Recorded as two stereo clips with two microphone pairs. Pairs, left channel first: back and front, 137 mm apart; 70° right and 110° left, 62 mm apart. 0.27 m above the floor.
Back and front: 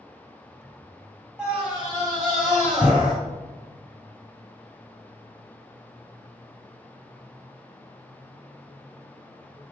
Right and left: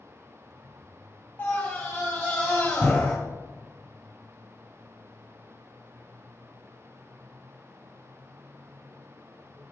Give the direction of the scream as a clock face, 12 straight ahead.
3 o'clock.